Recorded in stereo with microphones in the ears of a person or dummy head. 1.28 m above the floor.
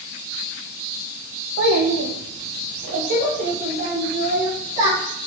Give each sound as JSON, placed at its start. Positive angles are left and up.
{"t": 1.6, "sound": "a child speaking", "side_deg": -70, "distance_m": 0.6}